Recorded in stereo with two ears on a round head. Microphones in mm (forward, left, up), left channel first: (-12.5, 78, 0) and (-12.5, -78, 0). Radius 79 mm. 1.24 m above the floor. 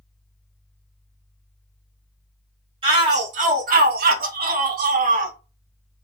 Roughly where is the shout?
Right.